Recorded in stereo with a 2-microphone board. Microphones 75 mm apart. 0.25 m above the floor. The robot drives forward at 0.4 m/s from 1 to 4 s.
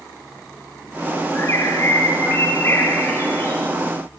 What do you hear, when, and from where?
1.4 s a bird: 40° left (ahead or behind), 4 m; by 3.6 s 30° left (ahead or behind), 4.5 m